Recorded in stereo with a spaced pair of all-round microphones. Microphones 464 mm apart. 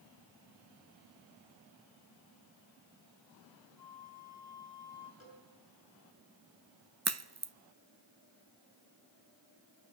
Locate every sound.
3.8 s a flute: 40° left (ahead or behind), 8.5 m
5.2 s a cowbell: 80° left, 7.5 m
7.0 s a crack: 35° right (ahead or behind), 0.6 m